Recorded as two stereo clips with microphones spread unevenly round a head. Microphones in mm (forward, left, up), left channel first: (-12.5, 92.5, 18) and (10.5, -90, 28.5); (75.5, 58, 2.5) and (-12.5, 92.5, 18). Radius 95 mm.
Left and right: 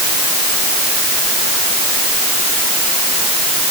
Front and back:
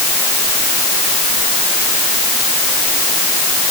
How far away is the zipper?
I don't hear a zipper.